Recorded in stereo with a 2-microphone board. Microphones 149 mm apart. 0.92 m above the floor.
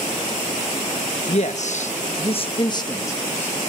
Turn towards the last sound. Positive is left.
turn(degrees=15)  # may be behind; listen again after turning